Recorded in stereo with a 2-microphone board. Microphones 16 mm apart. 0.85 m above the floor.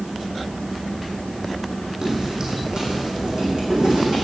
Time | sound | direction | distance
2.0 | footsteps | 30° right (ahead or behind) | 3 m